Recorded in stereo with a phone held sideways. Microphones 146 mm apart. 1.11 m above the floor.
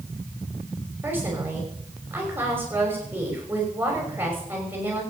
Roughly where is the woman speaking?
Centre.